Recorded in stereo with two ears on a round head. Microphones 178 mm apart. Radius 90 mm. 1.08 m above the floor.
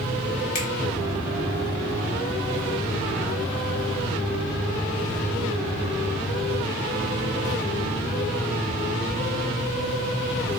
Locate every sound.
0.6 s a finger snap: 40° left (ahead or behind), 1.4 m